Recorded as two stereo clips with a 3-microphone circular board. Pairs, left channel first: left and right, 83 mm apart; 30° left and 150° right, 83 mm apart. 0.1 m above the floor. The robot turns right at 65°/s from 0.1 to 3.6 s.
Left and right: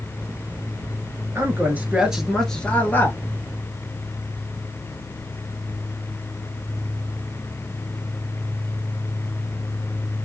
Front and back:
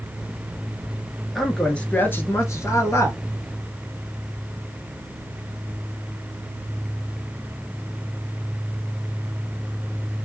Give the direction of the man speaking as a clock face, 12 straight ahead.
2 o'clock.